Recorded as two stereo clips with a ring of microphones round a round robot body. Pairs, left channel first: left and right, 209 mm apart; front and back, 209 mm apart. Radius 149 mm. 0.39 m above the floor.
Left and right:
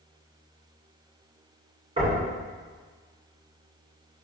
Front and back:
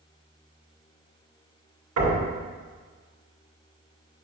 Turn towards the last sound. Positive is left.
turn(degrees=-160)